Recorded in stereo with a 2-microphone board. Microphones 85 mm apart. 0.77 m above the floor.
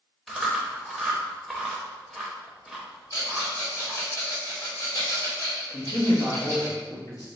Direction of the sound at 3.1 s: 55° left (ahead or behind).